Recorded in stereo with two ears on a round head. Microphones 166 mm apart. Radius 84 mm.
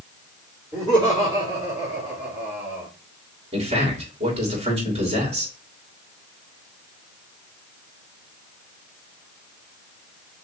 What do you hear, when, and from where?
0.7 s laughter: 35° right (ahead or behind), 3 m; by 2.9 s 15° right (ahead or behind), 1.7 m
3.5 s a man speaking: 35° right (ahead or behind), 2.5 m